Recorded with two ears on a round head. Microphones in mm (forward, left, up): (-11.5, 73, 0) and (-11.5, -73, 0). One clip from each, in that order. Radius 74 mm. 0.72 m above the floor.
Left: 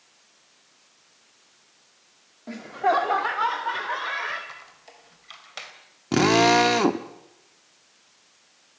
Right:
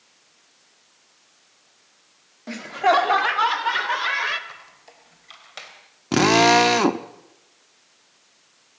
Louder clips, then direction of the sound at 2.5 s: Right 4 dB; 50° right (ahead or behind).